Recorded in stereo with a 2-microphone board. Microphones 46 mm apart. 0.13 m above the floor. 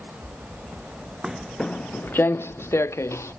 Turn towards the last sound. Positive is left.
turn(degrees=80)